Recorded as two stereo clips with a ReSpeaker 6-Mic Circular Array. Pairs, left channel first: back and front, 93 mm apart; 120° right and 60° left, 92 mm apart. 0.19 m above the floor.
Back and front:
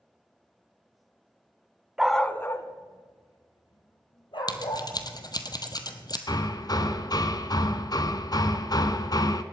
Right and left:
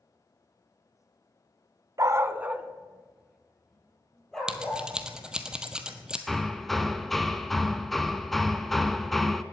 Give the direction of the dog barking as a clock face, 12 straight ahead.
9 o'clock.